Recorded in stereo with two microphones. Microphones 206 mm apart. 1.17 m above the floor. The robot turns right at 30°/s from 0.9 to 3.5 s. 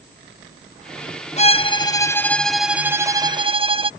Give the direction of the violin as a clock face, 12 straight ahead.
7 o'clock.